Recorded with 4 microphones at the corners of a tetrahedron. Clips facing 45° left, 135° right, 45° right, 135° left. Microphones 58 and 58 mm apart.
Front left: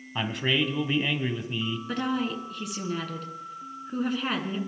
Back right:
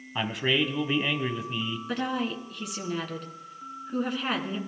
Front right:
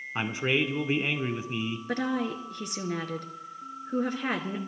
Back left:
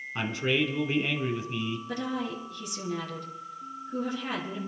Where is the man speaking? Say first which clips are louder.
Even, even; 50° right, 1.0 m.